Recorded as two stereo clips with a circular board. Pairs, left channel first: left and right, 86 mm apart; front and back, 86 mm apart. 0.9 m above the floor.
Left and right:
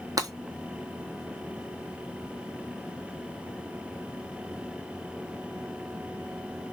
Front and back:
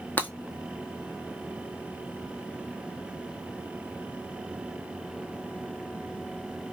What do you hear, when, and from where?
0.2 s breaking glass: 65° right, 1.4 m